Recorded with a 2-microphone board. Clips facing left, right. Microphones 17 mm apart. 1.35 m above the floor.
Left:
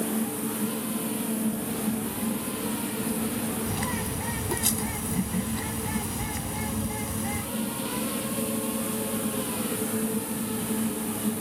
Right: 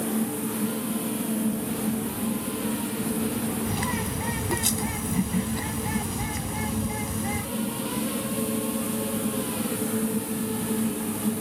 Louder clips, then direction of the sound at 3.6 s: Right 2 dB; 15° right (ahead or behind).